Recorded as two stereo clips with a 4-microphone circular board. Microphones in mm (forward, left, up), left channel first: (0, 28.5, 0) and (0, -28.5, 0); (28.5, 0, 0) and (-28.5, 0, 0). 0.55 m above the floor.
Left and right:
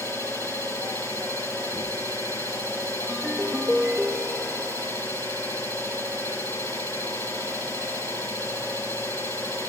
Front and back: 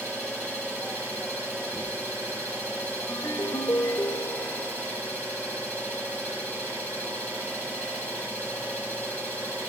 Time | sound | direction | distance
0.0 | an engine running | 120° left | 9 m
3.1 | a ringtone | 5° right | 1.3 m